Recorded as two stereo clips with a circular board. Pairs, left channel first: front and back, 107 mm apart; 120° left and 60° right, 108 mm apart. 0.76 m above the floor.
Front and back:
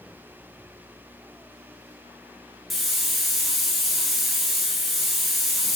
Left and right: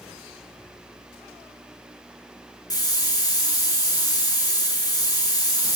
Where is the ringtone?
I don't hear a ringtone.